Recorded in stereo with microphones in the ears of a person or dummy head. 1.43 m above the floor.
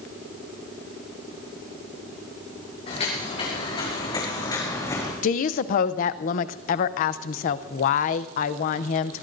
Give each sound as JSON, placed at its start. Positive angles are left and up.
{"t": 2.9, "sound": "footsteps", "side_deg": 40, "distance_m": 6.5}
{"t": 5.2, "sound": "a woman speaking", "side_deg": 50, "distance_m": 0.7}